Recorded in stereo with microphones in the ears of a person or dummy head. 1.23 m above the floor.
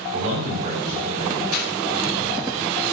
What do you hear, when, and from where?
0.1 s a man speaking: 35° right (ahead or behind), 4.5 m
1.5 s a clap: 50° right (ahead or behind), 7.5 m